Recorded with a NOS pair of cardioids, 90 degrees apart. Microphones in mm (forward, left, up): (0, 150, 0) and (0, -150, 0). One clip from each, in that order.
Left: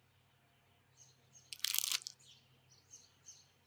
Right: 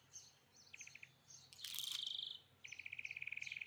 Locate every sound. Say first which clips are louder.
1.5 s crumpling: left 8 dB; 65° left, 0.7 m